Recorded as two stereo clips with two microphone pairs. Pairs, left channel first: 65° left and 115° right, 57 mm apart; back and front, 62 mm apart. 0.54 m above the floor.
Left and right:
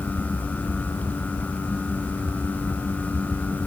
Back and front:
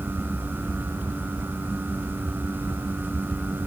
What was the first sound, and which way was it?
Only background noise.